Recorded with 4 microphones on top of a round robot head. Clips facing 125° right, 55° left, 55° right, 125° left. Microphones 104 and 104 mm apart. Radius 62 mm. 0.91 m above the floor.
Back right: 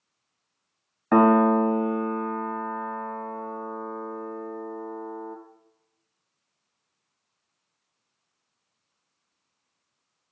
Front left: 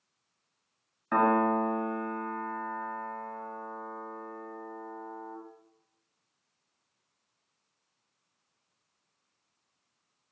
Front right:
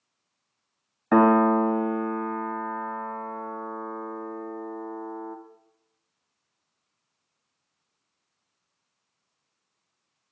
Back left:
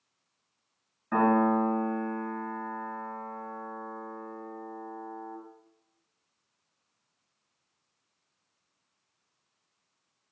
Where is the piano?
80° right, 0.8 m.